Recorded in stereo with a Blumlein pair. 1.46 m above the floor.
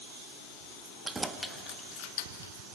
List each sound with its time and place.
1.1 s keys jangling: 15° right, 1.7 m; by 2.5 s 65° left, 1.8 m